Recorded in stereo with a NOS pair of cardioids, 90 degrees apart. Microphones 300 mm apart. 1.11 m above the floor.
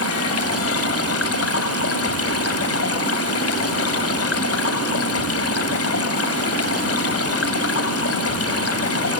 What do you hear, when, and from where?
0.0 s running water: 50° left, 2 m